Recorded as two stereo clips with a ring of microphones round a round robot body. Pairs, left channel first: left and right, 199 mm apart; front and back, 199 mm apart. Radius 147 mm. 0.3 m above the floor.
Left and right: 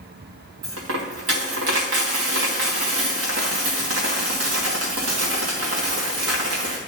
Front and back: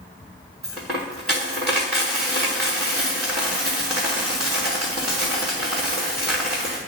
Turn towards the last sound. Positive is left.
turn(degrees=-95)